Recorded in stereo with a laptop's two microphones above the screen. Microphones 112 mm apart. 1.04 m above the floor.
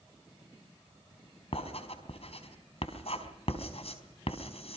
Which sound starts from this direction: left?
Writing, at 1.5 s.